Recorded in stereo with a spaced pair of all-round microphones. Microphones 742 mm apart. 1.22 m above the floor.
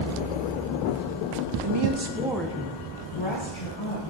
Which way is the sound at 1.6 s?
50° right (ahead or behind).